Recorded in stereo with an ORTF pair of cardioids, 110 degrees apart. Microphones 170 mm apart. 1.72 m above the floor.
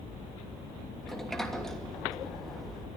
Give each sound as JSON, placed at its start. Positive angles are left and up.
{"t": 1.0, "sound": "a sliding door", "azimuth_deg": 0, "distance_m": 3.0}